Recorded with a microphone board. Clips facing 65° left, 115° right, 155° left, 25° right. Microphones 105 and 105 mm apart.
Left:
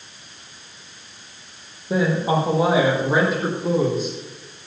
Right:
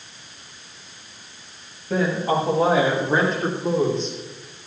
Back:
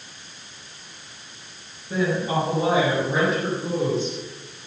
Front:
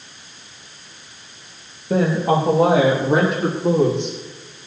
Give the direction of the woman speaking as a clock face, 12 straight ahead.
12 o'clock.